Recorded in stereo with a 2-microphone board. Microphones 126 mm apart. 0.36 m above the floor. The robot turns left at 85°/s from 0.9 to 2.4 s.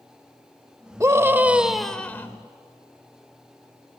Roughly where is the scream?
Right.